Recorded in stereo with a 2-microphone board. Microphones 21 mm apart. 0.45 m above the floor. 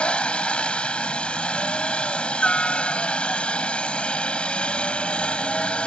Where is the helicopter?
60° left (ahead or behind).